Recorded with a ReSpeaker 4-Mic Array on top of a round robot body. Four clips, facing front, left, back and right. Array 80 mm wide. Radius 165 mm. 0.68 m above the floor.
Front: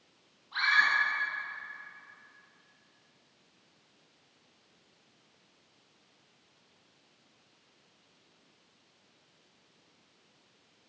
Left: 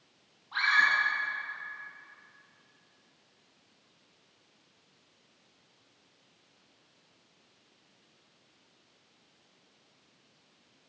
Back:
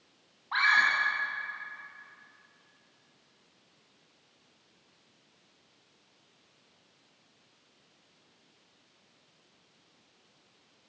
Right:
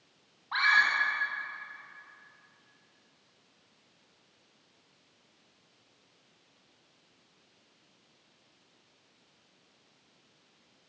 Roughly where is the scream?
Behind right.